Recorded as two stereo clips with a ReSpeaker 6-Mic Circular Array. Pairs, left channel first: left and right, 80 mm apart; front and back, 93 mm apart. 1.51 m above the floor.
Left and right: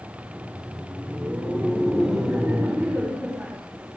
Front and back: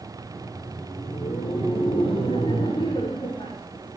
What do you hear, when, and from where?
0.2 s laughter: 10° right, 7 m